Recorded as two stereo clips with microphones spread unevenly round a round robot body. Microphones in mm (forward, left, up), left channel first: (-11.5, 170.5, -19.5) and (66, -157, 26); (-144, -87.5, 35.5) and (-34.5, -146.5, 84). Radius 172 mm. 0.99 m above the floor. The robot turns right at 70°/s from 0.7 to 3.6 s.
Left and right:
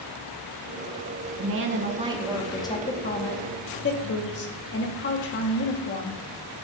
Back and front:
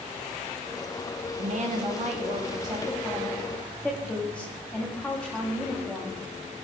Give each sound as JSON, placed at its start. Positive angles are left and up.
{"t": 1.4, "sound": "a woman speaking", "azimuth_deg": -45, "distance_m": 0.9}